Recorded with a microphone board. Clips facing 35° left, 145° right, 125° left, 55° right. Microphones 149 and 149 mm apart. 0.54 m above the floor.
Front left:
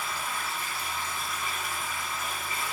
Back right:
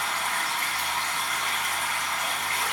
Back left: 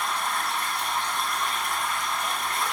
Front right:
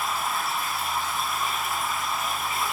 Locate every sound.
0.0 s running water: 140° right, 1.8 m